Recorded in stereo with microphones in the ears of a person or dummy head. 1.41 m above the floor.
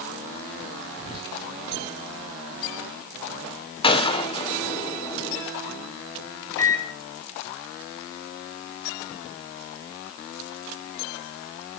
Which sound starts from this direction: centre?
A microwave, at 6.6 s.